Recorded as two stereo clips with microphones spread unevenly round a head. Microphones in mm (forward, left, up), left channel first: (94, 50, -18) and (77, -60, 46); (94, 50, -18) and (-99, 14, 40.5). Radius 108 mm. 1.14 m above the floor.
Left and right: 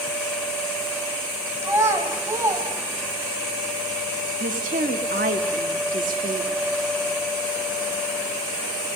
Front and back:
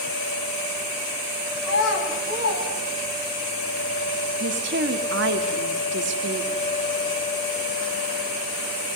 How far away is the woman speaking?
About 2 m.